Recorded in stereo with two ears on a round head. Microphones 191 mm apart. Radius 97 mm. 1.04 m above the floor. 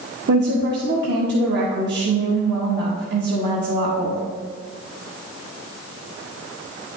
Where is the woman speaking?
55° right (ahead or behind), 1.3 m.